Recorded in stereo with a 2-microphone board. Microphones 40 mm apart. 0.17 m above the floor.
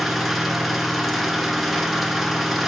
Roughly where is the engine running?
Centre.